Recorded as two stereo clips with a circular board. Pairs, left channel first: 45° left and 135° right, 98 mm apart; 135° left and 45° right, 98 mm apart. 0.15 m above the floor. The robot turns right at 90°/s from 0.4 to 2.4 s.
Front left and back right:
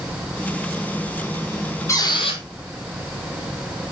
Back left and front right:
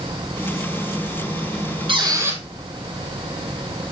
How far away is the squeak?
About 1.7 m.